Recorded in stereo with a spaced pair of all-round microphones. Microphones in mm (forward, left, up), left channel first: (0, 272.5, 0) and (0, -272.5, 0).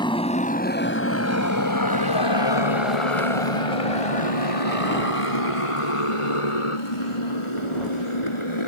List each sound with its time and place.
0.0 s a motorcycle: 10° left (ahead or behind); by 8.7 s 60° left (ahead or behind)